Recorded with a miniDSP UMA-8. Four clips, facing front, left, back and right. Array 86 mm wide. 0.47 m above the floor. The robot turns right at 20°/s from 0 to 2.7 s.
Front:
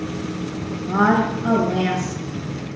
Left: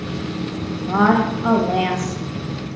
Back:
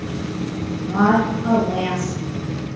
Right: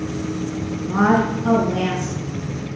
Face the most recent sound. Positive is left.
turn(degrees=110)